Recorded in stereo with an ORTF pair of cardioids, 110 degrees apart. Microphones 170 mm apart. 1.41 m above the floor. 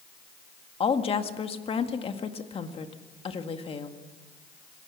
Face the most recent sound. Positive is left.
turn(degrees=35)